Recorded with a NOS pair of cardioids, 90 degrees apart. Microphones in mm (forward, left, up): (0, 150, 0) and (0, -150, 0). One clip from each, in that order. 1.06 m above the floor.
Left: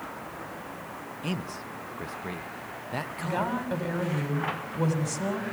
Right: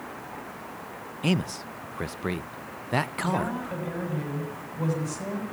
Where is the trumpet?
I don't hear a trumpet.